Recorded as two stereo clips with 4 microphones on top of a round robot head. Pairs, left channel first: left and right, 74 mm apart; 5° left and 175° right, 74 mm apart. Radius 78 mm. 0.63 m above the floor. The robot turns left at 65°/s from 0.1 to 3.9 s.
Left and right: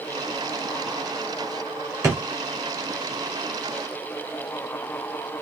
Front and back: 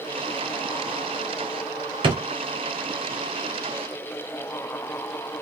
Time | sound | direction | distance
2.0 | a drawer | 150° right | 1.1 m